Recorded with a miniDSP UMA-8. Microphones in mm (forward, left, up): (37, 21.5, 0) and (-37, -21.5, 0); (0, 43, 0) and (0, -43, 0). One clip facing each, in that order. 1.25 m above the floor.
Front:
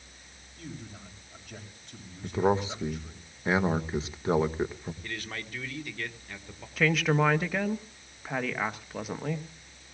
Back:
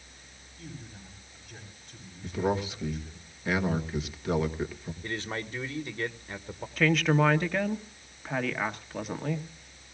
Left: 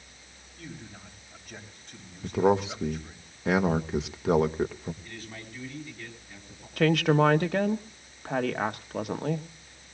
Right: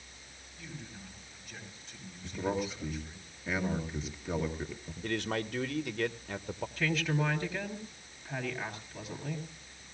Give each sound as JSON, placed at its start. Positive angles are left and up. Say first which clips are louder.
{"t": 0.6, "sound": "a man speaking", "louder": "front 2 dB, left 3 dB", "azimuth_deg": 45, "distance_m": 8.0}
{"t": 2.2, "sound": "a man speaking", "louder": "front 3 dB, left 10 dB", "azimuth_deg": 90, "distance_m": 1.7}
{"t": 5.0, "sound": "a man speaking", "louder": "back 8 dB, right 10 dB", "azimuth_deg": -90, "distance_m": 1.4}
{"t": 6.8, "sound": "a woman speaking", "louder": "back 1 dB, left 11 dB", "azimuth_deg": 115, "distance_m": 1.3}